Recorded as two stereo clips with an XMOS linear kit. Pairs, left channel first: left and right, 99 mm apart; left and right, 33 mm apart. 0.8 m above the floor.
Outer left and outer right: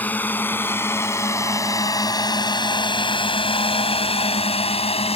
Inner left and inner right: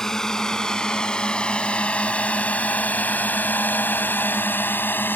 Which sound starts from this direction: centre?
A drone, at 0.0 s.